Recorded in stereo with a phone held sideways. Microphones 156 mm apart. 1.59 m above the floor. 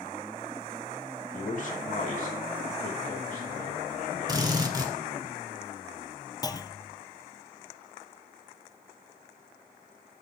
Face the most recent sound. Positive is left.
turn(degrees=25)  # may be behind; listen again after turning